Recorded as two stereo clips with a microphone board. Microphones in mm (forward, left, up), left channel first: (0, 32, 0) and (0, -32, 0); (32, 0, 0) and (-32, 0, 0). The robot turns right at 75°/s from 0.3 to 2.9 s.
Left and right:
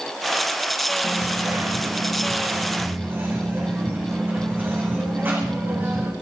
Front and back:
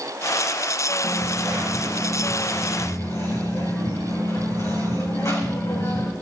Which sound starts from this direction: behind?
A dropped coin, at 1.0 s.